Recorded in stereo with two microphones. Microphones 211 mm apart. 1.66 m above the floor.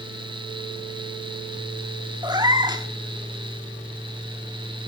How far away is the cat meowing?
About 1.4 m.